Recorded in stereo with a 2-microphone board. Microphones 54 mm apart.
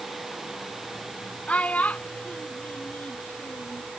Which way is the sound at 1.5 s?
25° left (ahead or behind).